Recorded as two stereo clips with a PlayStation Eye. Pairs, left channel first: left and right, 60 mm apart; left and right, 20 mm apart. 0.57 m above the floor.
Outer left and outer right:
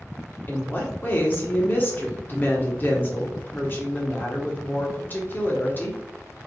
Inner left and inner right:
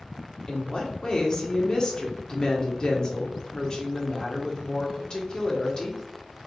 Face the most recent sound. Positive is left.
turn(degrees=35)  # may be behind; listen again after turning